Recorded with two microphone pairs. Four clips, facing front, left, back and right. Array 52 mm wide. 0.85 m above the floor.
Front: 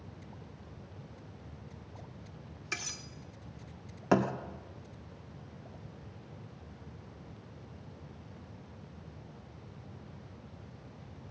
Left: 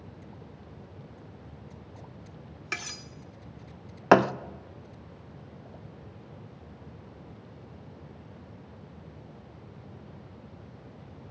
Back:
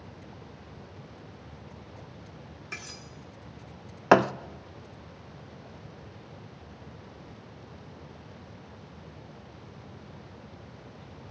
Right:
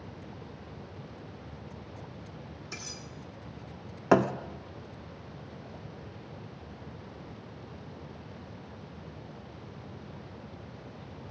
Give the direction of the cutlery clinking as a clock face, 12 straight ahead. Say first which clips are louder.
Left 10 dB, front 2 dB; 9 o'clock.